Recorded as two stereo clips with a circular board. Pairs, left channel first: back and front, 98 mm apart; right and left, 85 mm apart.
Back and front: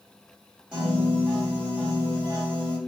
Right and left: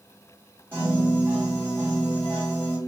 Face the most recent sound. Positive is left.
turn(degrees=65)